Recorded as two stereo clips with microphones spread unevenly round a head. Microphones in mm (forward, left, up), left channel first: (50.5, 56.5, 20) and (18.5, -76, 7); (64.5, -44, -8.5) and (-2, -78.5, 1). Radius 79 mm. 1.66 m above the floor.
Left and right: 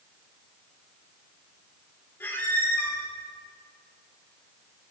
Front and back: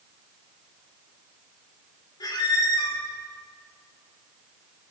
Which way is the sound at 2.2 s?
10° left.